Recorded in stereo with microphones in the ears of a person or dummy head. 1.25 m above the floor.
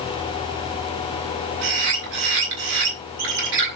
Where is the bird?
60° right (ahead or behind), 5 m.